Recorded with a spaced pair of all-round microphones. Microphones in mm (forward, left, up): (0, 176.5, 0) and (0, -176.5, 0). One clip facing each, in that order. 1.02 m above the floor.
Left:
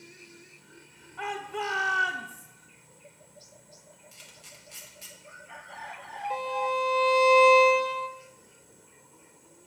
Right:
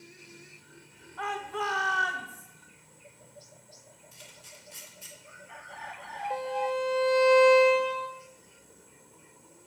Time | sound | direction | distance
1.2 | a shout | 40° left (ahead or behind) | 0.7 m
4.1 | a camera shutter | 75° left (ahead or behind) | 1.5 m
6.3 | a violin | 15° left (ahead or behind) | 0.5 m